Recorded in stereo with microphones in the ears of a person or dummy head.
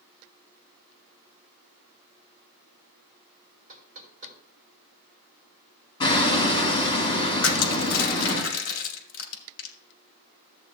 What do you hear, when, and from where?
3.7 s knocking: 45° right (ahead or behind), 2.5 m
6.0 s hammering: 25° left (ahead or behind), 2.5 m
7.4 s crushing: 65° left (ahead or behind), 2 m